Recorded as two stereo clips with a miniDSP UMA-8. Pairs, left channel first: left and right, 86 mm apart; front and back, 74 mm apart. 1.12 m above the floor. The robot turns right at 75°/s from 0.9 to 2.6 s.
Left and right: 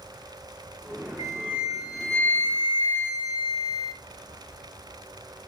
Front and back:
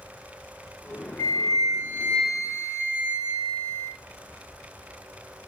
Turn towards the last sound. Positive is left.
turn(degrees=60)